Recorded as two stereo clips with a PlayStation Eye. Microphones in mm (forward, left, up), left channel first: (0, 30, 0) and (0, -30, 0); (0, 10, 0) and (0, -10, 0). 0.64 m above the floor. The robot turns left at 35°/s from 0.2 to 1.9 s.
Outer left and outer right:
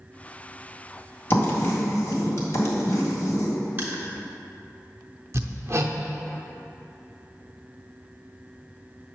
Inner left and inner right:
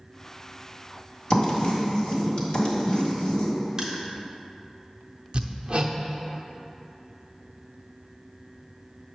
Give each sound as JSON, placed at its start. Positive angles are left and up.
{"t": 1.3, "sound": "writing", "side_deg": 40, "distance_m": 1.7}
{"t": 3.8, "sound": "crushing", "side_deg": -30, "distance_m": 1.1}
{"t": 5.3, "sound": "hammering", "side_deg": -50, "distance_m": 0.5}